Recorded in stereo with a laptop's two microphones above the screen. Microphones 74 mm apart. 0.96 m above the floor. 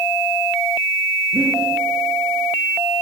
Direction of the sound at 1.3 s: 40° right (ahead or behind).